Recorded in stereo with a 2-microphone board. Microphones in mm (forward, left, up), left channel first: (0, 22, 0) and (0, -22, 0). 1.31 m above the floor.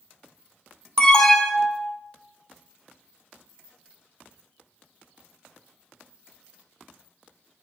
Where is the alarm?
15° left (ahead or behind), 1.4 m.